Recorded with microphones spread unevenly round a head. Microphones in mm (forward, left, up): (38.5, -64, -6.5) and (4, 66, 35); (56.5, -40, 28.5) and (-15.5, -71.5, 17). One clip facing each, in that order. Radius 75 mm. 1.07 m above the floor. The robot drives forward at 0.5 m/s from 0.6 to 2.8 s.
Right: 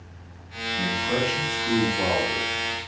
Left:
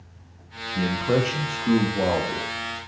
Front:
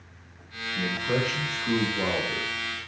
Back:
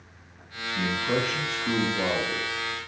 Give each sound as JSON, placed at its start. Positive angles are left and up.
{"t": 0.8, "sound": "a man speaking", "azimuth_deg": 120, "distance_m": 0.9}